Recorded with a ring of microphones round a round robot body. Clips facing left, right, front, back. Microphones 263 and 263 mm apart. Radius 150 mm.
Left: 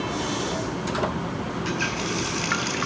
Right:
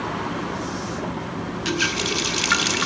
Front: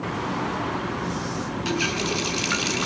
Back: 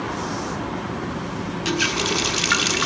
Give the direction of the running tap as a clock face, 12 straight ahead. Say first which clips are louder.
Right 3 dB, back 2 dB; 4 o'clock.